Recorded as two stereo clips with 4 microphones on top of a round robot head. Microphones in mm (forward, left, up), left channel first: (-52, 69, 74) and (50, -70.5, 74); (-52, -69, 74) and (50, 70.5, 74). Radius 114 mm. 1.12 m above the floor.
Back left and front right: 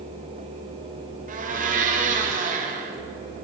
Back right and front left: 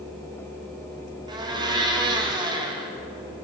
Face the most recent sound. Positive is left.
turn(degrees=-15)